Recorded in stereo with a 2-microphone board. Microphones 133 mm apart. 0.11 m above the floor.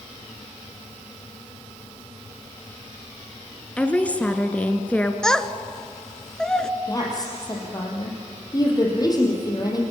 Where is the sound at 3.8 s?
10° left (ahead or behind), 1.3 m.